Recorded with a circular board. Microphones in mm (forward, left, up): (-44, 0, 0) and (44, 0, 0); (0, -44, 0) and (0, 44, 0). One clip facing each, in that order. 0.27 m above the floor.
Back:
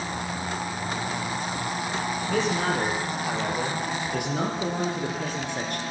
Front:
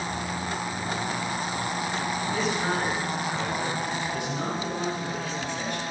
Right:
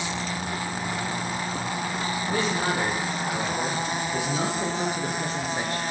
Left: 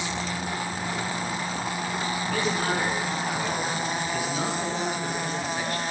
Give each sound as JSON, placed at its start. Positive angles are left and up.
{"t": 2.2, "sound": "a man speaking", "azimuth_deg": -160, "distance_m": 7.5}